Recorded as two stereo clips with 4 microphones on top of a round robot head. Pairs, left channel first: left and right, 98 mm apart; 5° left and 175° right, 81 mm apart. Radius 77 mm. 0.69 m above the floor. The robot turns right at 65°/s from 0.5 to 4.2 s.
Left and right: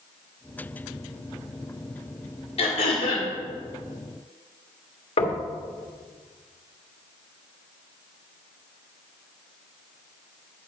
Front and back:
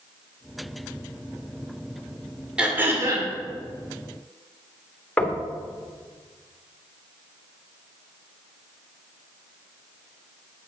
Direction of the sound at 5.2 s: 75° left.